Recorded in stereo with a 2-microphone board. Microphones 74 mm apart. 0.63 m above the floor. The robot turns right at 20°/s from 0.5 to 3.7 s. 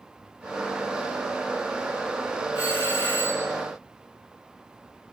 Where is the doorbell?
15° right (ahead or behind), 2.5 m; by 3.5 s 35° right (ahead or behind), 2.5 m.